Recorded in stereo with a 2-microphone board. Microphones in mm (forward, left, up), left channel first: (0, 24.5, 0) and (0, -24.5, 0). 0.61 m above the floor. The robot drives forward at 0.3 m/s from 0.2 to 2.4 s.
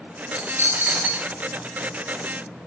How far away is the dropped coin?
About 0.6 m.